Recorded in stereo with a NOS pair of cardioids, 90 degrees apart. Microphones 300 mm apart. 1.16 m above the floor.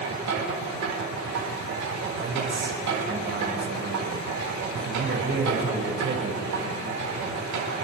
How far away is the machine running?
About 4.5 m.